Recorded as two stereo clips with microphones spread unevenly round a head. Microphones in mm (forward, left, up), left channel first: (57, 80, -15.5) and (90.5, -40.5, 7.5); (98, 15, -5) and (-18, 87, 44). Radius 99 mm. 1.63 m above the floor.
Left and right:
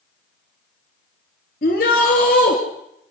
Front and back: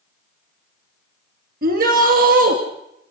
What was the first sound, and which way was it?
A shout, 145° left.